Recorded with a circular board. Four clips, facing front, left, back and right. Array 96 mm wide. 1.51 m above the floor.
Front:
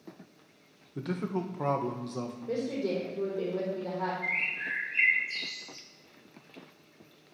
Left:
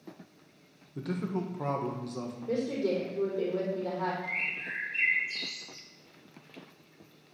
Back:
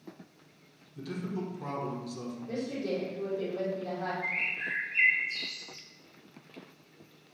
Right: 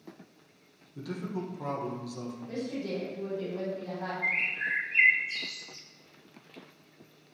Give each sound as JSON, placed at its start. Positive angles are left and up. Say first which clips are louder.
{"t": 0.9, "sound": "a man speaking", "louder": "left 3 dB, front 4 dB", "azimuth_deg": 20, "distance_m": 1.8}
{"t": 2.5, "sound": "a woman speaking", "louder": "left 6 dB, front 2 dB", "azimuth_deg": 65, "distance_m": 4.5}
{"t": 4.2, "sound": "a bird", "louder": "right 4 dB, front 1 dB", "azimuth_deg": -85, "distance_m": 2.5}